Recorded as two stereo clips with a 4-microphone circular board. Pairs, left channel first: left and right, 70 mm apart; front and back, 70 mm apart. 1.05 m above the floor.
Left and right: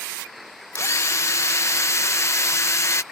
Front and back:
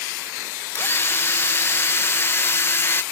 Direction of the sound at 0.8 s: 50° left.